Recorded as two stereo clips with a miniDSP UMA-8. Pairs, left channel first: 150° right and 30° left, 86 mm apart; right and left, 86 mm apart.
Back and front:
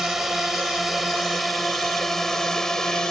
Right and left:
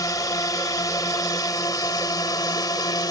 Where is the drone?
55° right; by 3.1 s 70° right.